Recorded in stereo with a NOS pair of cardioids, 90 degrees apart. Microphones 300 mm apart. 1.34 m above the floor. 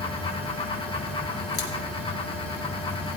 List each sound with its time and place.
0.0 s a fan: 20° left, 3.5 m
1.5 s scissors: 55° left, 4 m